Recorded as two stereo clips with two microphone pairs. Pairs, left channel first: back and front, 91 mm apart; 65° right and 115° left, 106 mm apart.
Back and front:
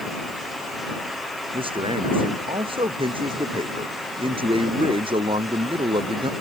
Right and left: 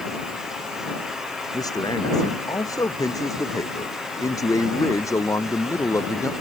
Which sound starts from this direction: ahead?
A man speaking, at 1.5 s.